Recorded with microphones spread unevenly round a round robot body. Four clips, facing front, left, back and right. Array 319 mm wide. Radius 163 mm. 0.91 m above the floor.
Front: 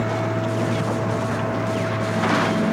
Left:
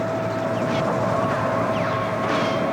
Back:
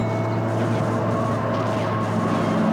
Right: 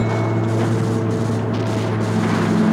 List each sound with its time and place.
0.0 s a lawn mower: 105° right; by 2.7 s 100° right